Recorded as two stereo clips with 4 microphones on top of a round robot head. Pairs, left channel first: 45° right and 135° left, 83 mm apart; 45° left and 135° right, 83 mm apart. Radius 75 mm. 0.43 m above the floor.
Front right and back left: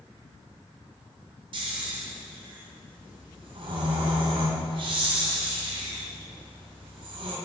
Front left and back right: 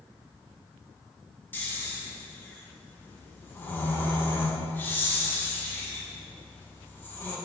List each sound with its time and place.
1.5 s snoring: 110° left, 2.5 m